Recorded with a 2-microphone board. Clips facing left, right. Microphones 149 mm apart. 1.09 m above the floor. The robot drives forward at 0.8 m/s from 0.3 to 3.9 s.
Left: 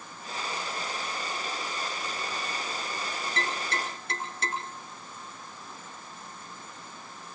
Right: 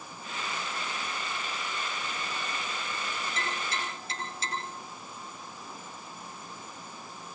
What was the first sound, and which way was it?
Tapping, 60° left (ahead or behind).